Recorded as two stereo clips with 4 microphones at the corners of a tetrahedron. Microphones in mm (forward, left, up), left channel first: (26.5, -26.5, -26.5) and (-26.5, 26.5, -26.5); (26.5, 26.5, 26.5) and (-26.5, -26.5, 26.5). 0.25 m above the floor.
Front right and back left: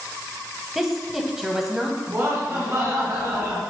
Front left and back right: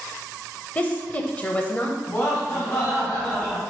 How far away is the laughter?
About 2 m.